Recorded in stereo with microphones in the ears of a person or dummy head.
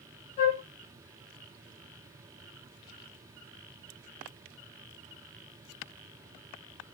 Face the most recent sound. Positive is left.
turn(degrees=25)  # may be behind; listen again after turning